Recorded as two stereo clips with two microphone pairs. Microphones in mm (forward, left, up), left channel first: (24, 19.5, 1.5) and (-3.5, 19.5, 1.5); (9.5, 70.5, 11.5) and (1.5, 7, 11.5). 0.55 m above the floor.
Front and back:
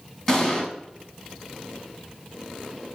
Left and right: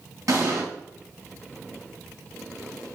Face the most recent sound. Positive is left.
turn(degrees=-70)